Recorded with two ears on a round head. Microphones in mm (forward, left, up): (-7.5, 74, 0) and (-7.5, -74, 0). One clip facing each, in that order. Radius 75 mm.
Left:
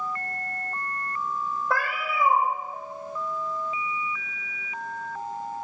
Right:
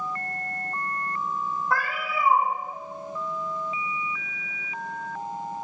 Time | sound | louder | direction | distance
1.7 | a cat meowing | even | 55° left (ahead or behind) | 0.7 m